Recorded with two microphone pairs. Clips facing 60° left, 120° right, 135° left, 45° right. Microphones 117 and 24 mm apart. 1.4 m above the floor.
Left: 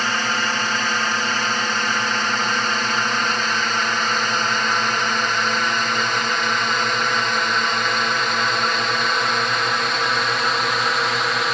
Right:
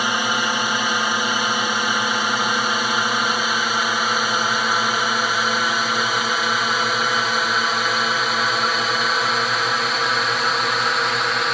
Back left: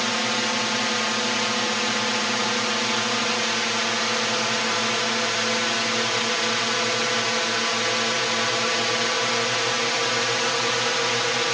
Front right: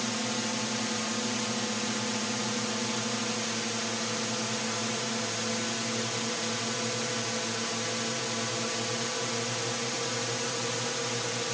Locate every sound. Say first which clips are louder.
0.0 s a drone: right 1 dB, back left 8 dB; 165° left; by 11.5 s 150° left